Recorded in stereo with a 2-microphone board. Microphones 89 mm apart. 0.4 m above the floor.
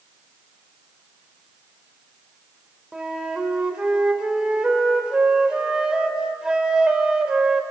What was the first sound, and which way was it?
A flute, 10° right (ahead or behind).